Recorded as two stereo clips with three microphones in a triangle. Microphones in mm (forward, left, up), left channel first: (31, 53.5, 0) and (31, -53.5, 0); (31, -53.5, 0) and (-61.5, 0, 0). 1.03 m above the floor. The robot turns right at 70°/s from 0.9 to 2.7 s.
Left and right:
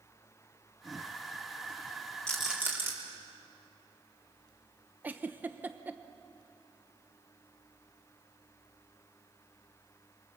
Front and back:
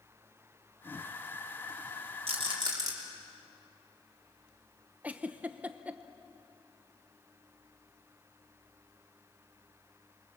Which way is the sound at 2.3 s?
170° left.